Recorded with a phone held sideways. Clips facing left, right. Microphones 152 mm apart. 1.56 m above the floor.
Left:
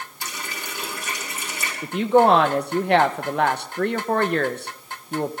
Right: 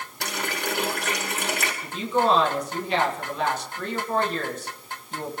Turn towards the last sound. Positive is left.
turn(degrees=65)  # may be behind; listen again after turning